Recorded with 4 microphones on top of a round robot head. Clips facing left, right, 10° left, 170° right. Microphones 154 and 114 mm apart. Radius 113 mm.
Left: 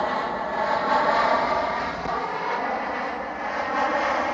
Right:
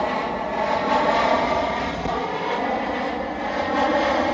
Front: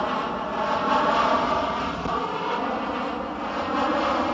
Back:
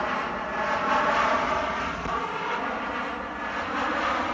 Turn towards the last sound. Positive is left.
turn(degrees=-45)